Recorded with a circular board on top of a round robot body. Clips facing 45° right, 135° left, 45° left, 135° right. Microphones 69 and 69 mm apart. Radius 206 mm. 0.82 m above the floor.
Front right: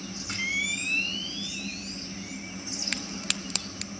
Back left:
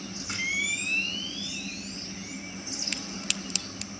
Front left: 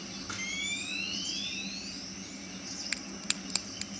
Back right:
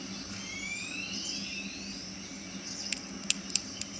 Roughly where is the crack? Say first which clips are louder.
Front right 2 dB, front left 1 dB; ahead.